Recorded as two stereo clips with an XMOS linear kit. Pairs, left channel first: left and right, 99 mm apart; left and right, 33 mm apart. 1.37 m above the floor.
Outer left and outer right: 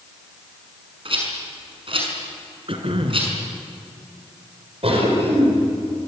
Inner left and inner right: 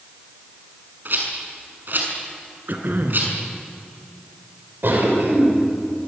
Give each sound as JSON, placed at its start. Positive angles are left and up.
{"t": 1.1, "sound": "a rattle", "side_deg": -60, "distance_m": 6.0}
{"t": 2.7, "sound": "throat clearing", "side_deg": -60, "distance_m": 3.0}
{"t": 4.8, "sound": "a cough", "side_deg": -70, "distance_m": 5.5}